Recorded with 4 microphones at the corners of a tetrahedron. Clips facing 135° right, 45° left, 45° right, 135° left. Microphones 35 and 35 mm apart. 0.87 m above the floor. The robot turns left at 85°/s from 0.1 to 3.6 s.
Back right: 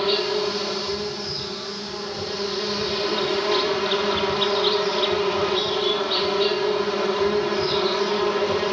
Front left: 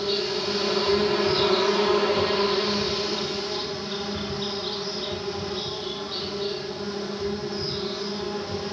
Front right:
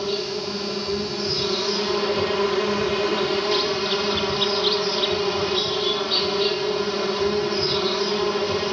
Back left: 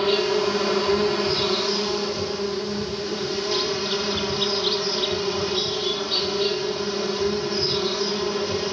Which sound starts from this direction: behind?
An insect, at 0.0 s.